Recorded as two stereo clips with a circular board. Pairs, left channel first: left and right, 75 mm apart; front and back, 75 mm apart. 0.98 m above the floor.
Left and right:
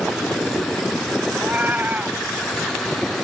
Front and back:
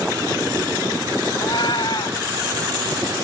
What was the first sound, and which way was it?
A cat meowing, 20° right.